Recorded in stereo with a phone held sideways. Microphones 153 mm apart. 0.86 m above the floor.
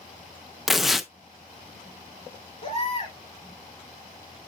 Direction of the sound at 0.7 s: Centre (ahead or behind).